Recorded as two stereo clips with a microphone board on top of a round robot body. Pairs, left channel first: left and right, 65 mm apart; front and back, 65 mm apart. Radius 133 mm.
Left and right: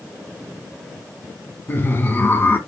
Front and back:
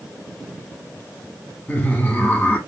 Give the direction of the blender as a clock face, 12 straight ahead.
No blender in this recording.